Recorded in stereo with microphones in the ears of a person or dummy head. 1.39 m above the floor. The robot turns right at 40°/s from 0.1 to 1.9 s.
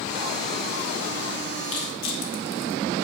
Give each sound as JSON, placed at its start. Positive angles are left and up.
{"t": 1.6, "sound": "crushing", "side_deg": 80, "distance_m": 1.6}